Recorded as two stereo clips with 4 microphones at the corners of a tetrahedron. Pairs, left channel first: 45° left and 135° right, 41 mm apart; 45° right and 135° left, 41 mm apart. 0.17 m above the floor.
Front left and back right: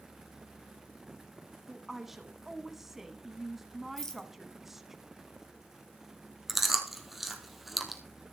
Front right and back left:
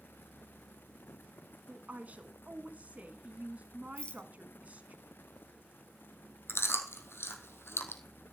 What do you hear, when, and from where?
1.7 s a woman speaking: 150° left, 1.3 m
4.0 s a rattle: 25° right, 1.5 m
6.5 s chewing: 50° right, 1.6 m